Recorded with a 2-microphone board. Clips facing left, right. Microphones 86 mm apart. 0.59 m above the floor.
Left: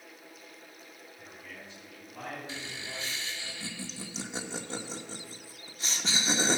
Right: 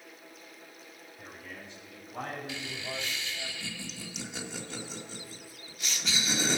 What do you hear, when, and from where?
1.2 s a man speaking: 80° right, 5 m; by 3.5 s 60° right (ahead or behind), 3 m
2.5 s laughter: 30° left (ahead or behind), 1.6 m